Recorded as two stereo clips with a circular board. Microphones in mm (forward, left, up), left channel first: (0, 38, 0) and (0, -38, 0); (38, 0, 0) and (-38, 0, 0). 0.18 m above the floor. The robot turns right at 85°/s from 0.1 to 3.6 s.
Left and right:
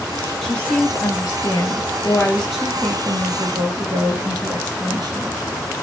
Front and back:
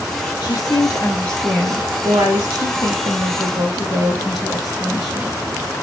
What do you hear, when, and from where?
0.4 s a woman speaking: straight ahead, 2.5 m; by 5.4 s 90° right, 2.5 m